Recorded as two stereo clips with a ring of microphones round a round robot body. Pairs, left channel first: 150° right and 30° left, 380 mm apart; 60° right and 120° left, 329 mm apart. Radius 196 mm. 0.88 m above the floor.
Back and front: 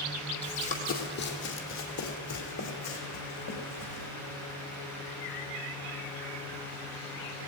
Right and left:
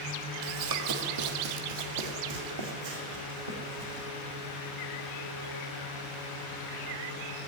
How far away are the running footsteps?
About 1.7 m.